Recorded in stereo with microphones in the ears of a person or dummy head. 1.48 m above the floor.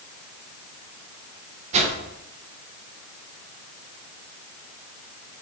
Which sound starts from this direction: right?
A whoosh, at 1.7 s.